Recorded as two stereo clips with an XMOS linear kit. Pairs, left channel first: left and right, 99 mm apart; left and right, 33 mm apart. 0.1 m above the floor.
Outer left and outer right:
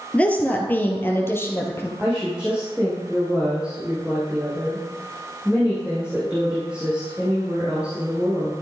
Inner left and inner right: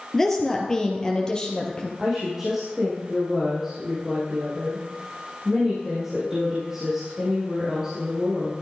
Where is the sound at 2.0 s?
10° right (ahead or behind), 5 m.